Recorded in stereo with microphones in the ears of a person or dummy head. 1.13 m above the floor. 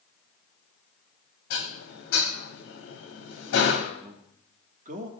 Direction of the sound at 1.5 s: 80° left.